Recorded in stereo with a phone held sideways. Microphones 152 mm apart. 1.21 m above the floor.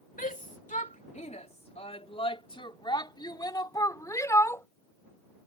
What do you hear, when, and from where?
0.2 s a shout: 65° left (ahead or behind); by 4.7 s 20° left (ahead or behind)